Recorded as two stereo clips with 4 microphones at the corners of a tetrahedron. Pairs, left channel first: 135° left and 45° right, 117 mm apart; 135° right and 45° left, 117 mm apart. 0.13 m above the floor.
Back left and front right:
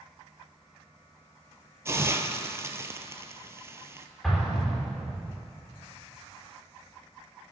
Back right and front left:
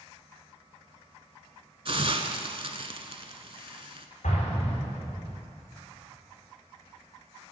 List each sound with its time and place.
1.9 s a hiss: 15° left, 0.6 m
4.2 s an explosion: 140° right, 3.5 m